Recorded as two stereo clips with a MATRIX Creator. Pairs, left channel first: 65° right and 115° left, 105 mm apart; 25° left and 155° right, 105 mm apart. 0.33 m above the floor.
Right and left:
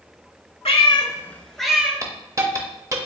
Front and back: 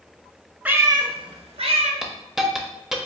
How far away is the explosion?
No explosion in this recording.